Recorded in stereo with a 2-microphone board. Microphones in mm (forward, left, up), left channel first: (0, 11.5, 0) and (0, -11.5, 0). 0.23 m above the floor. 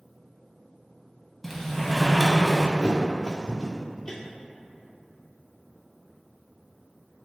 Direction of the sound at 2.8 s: 20° left (ahead or behind).